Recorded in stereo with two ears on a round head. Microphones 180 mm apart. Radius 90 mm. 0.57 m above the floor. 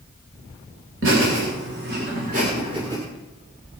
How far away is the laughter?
About 3 m.